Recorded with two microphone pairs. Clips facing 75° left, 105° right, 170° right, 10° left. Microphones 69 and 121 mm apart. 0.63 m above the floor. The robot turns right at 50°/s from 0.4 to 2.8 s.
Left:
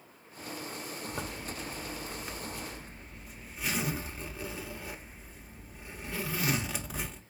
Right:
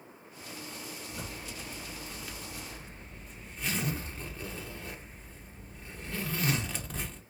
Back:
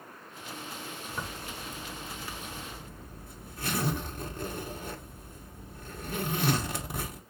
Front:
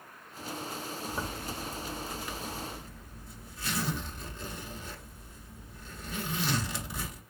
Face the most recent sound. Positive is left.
turn(degrees=160)